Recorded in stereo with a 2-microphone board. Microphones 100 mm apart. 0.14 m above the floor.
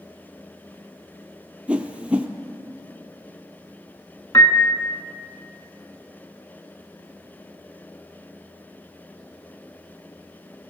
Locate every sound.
1.7 s a whoosh: 15° right (ahead or behind), 0.5 m
4.3 s a piano: 35° left (ahead or behind), 0.6 m